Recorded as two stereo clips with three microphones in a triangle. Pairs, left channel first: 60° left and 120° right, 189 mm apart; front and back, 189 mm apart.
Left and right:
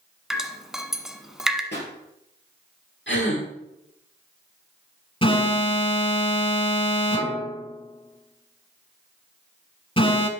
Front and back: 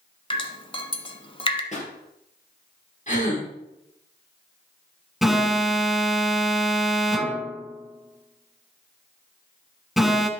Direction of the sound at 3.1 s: 50° left.